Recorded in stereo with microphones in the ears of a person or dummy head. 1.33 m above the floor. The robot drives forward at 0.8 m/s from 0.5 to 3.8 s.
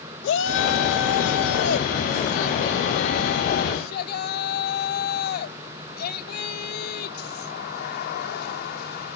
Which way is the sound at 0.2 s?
75° left (ahead or behind).